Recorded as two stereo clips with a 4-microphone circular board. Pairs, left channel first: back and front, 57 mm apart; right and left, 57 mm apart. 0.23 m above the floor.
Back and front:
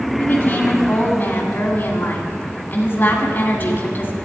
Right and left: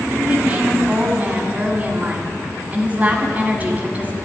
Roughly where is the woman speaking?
Behind left.